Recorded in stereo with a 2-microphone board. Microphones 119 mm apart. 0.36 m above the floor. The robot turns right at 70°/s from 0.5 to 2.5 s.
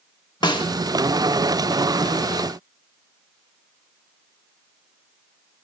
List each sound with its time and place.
0.4 s a snare drum: 40° left (ahead or behind), 0.8 m; by 0.7 s 45° left (ahead or behind), 0.8 m